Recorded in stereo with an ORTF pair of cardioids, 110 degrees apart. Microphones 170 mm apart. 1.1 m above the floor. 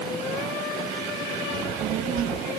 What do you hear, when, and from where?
1.5 s a child speaking: 60° right, 1.2 m